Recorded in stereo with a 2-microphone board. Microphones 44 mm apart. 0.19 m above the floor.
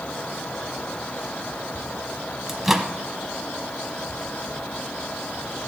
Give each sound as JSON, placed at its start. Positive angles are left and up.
{"t": 2.5, "sound": "a microwave", "side_deg": -10, "distance_m": 0.9}